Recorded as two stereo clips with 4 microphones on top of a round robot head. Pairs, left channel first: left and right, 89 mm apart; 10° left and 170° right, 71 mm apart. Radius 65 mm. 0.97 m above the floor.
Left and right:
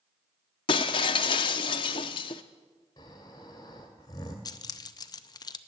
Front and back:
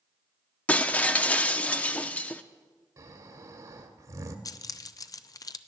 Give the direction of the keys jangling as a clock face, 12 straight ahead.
10 o'clock.